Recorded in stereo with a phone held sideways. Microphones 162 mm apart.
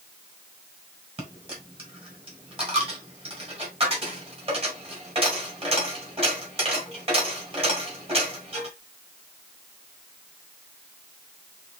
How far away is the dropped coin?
About 2 m.